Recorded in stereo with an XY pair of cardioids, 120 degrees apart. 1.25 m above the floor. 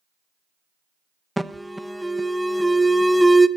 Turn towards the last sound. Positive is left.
turn(degrees=-5)